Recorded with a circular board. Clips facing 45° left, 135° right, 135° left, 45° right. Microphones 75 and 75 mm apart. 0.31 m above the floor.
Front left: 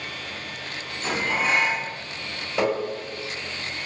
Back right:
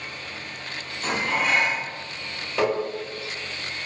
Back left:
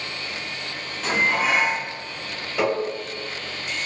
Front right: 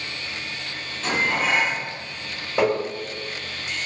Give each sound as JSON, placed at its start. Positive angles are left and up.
{"t": 1.0, "sound": "dishes clattering", "azimuth_deg": -150, "distance_m": 1.5}
{"t": 2.6, "sound": "tapping", "azimuth_deg": -25, "distance_m": 1.6}